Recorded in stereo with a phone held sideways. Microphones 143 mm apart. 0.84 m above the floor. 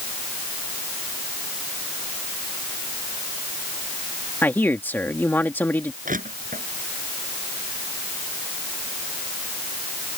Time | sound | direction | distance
4.4 | a man speaking | 15° left (ahead or behind) | ?
6.0 | crushing | 70° right (ahead or behind) | ?